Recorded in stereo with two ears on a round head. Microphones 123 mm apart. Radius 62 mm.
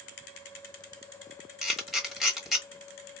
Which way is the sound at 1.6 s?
Centre (ahead or behind).